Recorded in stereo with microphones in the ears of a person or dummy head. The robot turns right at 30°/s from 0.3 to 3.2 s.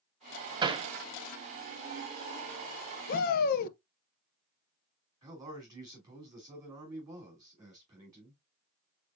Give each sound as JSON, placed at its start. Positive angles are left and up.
{"t": 0.6, "sound": "hammering", "side_deg": -25, "distance_m": 0.6}
{"t": 3.1, "sound": "a shout", "side_deg": 50, "distance_m": 0.5}
{"t": 5.2, "sound": "a man speaking", "side_deg": -20, "distance_m": 3.0}